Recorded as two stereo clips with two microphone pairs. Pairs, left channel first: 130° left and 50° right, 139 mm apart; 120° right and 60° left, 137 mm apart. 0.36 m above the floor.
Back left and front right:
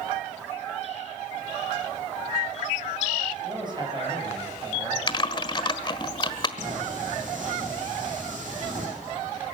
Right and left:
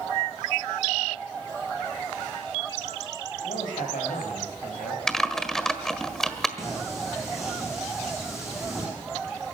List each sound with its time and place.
3.4 s a man speaking: 105° right, 9 m
5.1 s typing on a keyboard: 155° left, 1.5 m
6.6 s singing: 30° right, 9.5 m